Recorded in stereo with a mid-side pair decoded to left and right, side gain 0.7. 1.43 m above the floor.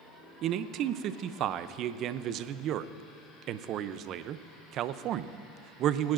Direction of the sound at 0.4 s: 50° right.